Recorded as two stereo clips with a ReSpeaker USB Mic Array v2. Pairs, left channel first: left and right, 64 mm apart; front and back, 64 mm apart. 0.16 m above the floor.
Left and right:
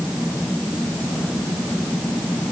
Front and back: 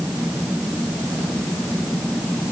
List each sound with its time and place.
Only background noise.